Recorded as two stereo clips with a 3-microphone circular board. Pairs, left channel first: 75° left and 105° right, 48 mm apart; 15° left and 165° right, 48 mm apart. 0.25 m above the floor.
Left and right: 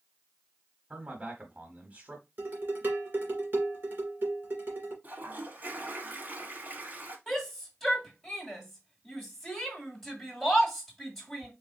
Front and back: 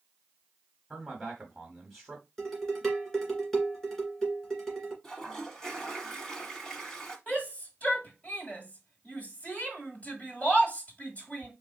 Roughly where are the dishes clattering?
Right.